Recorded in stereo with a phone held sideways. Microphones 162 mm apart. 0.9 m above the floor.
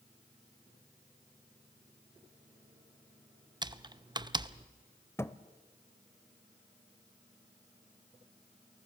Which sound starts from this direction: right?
Typing on a keyboard, at 3.6 s.